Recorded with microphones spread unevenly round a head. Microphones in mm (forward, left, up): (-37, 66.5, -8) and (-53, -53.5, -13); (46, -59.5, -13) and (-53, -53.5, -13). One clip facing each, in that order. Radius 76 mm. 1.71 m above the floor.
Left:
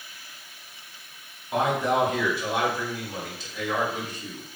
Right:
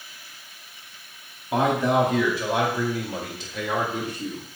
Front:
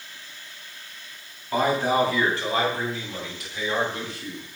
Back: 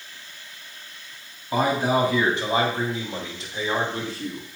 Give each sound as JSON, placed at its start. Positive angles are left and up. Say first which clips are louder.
{"t": 1.5, "sound": "a man speaking", "louder": "right 3 dB, even", "azimuth_deg": -105, "distance_m": 5.0}